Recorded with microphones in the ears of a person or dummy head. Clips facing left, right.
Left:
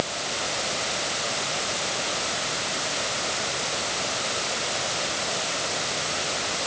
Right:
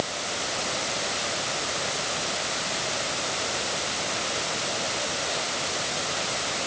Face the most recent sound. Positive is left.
No sound to turn to.